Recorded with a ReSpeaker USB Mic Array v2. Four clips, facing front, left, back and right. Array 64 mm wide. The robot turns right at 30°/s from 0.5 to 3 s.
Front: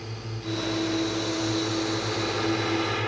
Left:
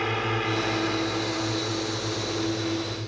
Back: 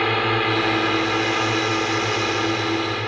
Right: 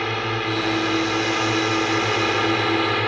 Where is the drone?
170° right; by 3.1 s 95° right.